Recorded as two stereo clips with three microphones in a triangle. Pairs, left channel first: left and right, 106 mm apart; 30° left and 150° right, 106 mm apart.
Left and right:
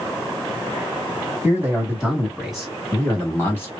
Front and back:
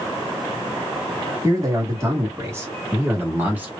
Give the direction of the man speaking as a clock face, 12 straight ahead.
5 o'clock.